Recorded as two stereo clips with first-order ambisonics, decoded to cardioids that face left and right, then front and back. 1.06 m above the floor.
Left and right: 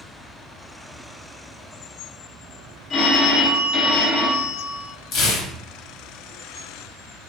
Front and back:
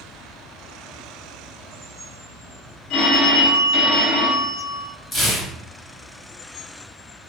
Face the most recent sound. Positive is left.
turn(degrees=60)